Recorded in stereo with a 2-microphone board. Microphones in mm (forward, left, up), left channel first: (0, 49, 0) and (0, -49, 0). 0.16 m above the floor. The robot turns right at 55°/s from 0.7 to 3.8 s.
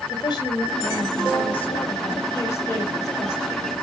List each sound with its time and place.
0.1 s a woman speaking: 50° left, 4.5 m; by 3.5 s 155° right, 4.5 m